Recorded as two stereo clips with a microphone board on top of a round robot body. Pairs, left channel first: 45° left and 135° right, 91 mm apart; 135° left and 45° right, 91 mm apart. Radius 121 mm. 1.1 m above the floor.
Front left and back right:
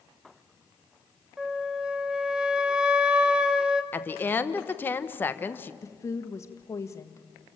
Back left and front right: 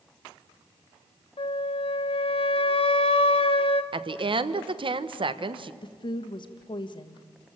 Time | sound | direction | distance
1.4 | a flute | 145° left | 1.3 m
3.9 | a woman speaking | 25° right | 1.2 m
5.8 | a woman speaking | 105° left | 1.6 m